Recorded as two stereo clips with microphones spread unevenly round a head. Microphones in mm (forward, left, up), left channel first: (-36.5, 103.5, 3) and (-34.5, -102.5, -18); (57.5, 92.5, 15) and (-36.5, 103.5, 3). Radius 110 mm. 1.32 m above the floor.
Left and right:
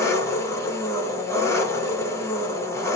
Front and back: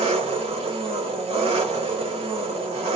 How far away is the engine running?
About 0.9 m.